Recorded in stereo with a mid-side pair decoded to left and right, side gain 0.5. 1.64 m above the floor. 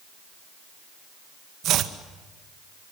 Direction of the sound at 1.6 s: 65° right.